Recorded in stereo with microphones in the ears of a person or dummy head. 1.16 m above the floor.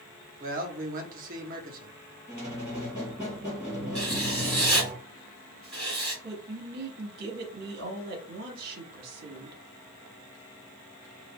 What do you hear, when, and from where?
0.4 s a man speaking: 40° right (ahead or behind), 0.8 m
2.3 s a squeak: 10° right (ahead or behind), 2 m
4.0 s writing: centre (ahead or behind), 2.5 m
6.2 s a woman speaking: 55° right (ahead or behind), 1.4 m